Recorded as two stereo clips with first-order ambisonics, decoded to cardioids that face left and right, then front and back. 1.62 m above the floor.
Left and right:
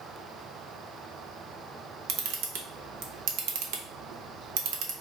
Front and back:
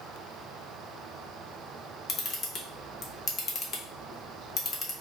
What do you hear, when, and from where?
2.1 s a camera shutter: 70° right, 0.7 m